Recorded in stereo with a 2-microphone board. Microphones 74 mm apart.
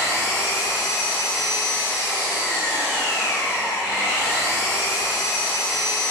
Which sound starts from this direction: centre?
An engine running, at 0.0 s.